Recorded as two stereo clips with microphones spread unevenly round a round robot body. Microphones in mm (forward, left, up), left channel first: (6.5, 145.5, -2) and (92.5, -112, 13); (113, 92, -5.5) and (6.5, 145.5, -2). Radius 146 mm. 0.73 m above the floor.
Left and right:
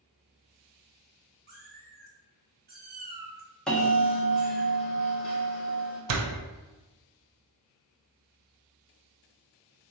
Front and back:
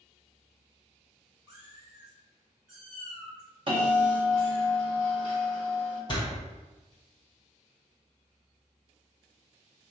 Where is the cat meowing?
130° right, 0.7 m.